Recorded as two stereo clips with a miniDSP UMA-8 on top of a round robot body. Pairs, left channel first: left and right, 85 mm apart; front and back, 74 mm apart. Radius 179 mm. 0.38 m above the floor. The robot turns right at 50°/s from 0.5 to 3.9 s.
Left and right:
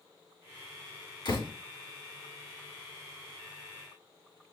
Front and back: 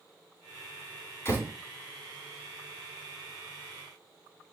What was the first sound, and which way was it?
A door slam, 55° left.